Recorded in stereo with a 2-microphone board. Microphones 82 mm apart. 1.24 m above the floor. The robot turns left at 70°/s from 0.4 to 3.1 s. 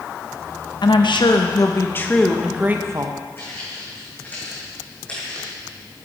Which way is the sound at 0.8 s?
110° left.